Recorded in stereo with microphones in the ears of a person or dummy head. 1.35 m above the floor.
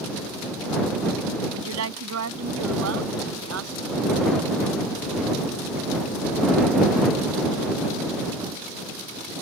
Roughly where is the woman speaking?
Right.